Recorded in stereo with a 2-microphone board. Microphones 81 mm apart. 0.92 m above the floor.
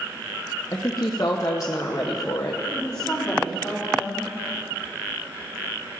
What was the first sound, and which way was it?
A woman speaking, 40° left (ahead or behind).